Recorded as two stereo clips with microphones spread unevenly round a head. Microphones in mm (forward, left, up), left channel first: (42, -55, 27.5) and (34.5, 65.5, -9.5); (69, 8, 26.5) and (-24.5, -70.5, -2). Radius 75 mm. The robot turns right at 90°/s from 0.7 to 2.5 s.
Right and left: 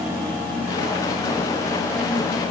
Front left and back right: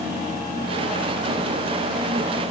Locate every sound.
Only background noise.